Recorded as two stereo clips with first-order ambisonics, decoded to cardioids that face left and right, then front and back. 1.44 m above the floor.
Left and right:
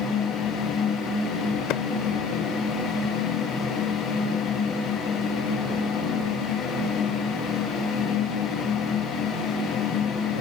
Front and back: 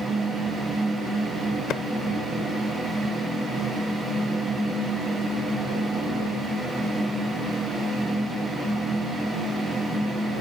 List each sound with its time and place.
1.7 s a clap: 50° left